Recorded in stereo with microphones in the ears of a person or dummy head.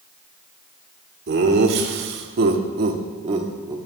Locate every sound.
1.3 s laughter: 60° right (ahead or behind), 1.6 m; by 3.8 s 20° right (ahead or behind), 1.3 m